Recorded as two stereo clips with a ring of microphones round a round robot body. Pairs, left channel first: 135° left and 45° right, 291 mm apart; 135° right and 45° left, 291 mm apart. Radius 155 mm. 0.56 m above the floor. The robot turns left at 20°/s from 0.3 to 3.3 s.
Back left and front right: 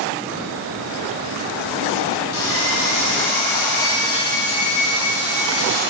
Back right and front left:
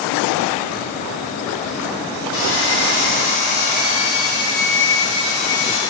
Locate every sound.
2.3 s sawing: straight behind, 4 m; by 5.8 s 160° left, 4 m